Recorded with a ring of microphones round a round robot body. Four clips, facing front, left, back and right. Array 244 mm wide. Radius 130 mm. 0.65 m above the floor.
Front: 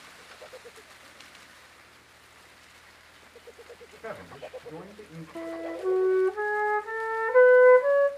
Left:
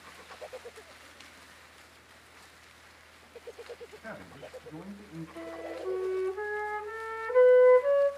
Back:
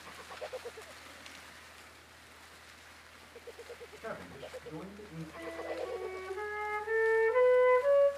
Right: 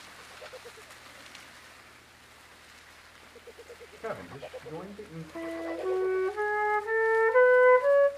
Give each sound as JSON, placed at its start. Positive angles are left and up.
{"t": 4.0, "sound": "a man speaking", "azimuth_deg": -75, "distance_m": 4.0}
{"t": 5.3, "sound": "a flute", "azimuth_deg": -40, "distance_m": 1.2}